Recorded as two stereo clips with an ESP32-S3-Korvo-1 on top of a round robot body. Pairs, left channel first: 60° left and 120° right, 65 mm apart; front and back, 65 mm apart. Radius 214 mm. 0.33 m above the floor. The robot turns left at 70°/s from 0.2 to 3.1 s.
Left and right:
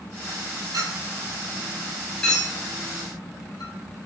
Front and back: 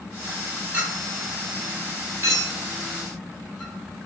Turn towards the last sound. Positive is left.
turn(degrees=80)